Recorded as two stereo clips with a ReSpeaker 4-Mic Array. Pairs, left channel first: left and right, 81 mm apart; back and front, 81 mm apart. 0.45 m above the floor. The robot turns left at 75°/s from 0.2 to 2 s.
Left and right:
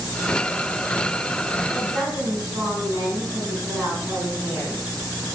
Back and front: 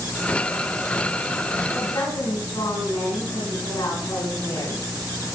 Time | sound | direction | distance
1.7 | a woman speaking | 160° right | 4.5 m